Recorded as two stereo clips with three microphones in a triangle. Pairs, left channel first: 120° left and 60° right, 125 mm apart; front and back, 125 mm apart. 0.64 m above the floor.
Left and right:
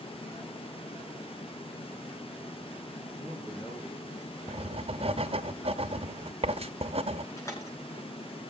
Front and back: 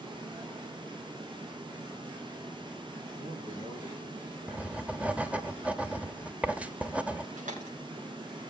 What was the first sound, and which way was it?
A man speaking, 170° right.